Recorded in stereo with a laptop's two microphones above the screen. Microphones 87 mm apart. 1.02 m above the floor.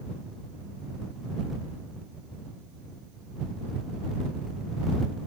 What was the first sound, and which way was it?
Only background noise.